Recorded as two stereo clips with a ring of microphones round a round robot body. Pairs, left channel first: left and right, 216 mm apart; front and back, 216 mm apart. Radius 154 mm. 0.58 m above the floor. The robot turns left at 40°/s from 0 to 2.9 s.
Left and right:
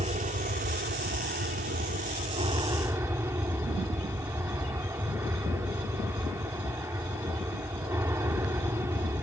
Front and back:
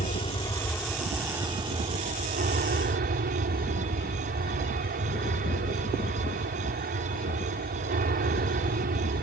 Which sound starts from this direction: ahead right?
An aircraft, at 0.0 s.